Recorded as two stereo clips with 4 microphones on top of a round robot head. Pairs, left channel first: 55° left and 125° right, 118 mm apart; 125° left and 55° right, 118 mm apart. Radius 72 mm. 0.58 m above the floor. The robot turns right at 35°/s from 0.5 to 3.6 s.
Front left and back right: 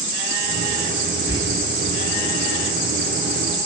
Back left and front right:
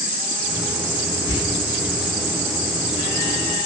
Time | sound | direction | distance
1.3 | whispering | 75° right | 1.4 m